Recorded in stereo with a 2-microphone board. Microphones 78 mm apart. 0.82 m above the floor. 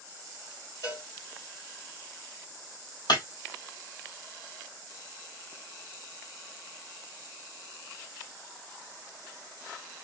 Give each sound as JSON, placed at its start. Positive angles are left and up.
{"t": 0.8, "sound": "a cowbell", "side_deg": 50, "distance_m": 1.8}
{"t": 3.1, "sound": "breaking glass", "side_deg": 70, "distance_m": 1.5}